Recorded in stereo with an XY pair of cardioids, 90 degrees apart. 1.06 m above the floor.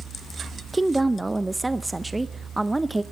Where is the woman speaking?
15° right, 0.6 m.